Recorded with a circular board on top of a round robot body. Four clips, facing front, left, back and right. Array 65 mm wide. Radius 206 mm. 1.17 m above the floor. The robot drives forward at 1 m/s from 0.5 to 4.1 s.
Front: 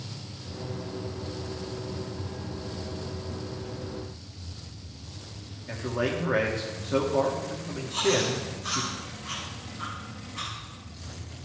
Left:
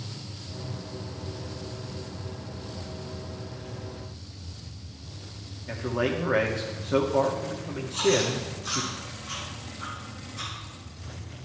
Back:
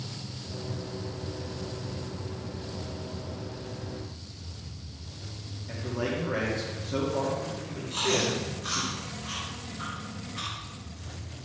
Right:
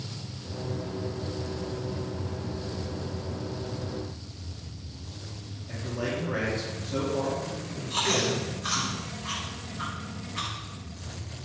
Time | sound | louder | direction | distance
5.7 | a man speaking | left 5 dB, front 3 dB | 65° left | 2.5 m
7.9 | chewing | left 3 dB, front 2 dB | 95° right | 5 m